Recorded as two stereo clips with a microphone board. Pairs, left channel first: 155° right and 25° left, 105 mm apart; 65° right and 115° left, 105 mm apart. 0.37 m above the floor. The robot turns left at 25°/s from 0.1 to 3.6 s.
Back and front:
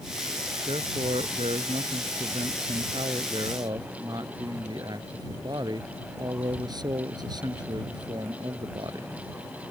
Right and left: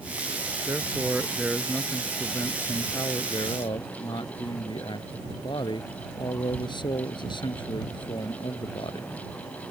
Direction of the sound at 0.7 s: 50° left.